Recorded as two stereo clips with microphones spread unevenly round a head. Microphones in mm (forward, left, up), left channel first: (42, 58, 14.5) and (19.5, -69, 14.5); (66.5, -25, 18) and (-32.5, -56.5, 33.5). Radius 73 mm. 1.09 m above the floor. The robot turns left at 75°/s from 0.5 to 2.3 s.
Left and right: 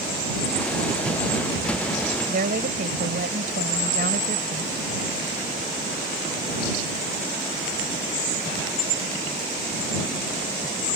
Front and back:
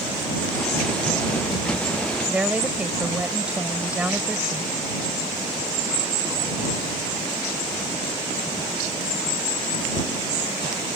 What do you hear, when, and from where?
2.3 s a woman speaking: 80° right; by 4.8 s 85° right